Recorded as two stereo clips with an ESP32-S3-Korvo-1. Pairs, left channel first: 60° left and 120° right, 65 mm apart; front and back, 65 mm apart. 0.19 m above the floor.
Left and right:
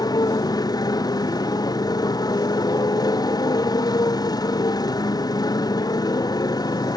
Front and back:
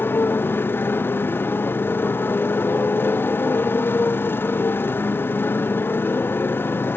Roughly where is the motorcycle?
Ahead left.